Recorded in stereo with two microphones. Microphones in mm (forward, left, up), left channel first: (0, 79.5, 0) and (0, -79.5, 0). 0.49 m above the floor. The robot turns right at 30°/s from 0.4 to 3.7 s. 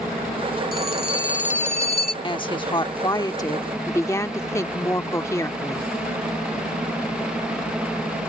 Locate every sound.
0.7 s a phone ringing: 100° left; by 2.1 s 145° left
2.2 s a woman speaking: 100° left; by 5.9 s 145° left